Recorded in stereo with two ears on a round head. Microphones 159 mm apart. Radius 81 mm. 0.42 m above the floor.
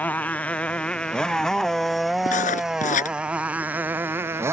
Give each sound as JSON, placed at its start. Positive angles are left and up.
{"t": 0.0, "sound": "a motorcycle", "side_deg": 10}
{"t": 2.3, "sound": "writing", "side_deg": 40}